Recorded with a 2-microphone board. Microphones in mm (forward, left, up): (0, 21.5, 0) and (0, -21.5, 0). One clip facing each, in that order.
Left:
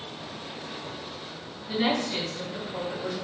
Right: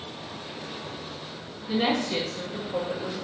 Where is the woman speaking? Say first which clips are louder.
Right 1 dB; 85° right, 1.6 m; by 3.1 s 70° right (ahead or behind), 2 m.